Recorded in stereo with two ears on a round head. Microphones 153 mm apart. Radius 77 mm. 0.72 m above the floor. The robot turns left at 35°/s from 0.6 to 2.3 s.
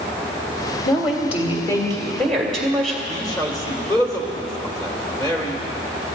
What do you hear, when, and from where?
0.8 s a woman speaking: 55° left, 2.5 m; by 3.0 s 5° left, 2.5 m
3.1 s a man speaking: 25° left (ahead or behind), 2.5 m